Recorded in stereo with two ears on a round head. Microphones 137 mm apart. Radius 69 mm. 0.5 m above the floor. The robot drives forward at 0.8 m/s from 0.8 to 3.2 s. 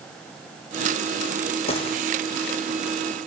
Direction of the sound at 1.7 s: 40° left (ahead or behind).